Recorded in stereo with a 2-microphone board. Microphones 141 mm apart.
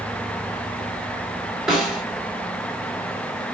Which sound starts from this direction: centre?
A snare drum, at 1.7 s.